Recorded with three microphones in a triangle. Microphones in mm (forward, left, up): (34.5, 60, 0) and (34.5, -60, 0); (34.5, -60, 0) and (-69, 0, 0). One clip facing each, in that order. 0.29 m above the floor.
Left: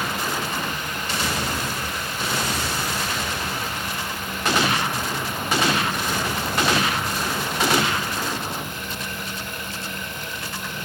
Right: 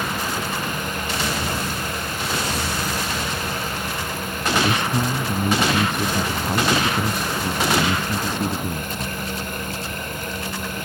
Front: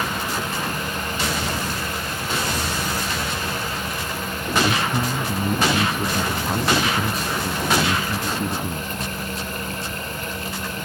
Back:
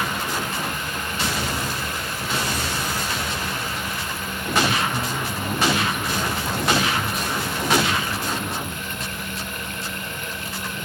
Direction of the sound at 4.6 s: 80° right.